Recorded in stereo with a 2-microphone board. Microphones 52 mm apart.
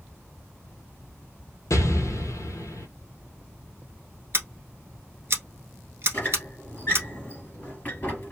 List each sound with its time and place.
1.7 s an explosion: 85° left, 0.7 m
4.3 s scissors: 50° right (ahead or behind), 1.2 m
6.1 s a squeak: 35° left (ahead or behind), 1.5 m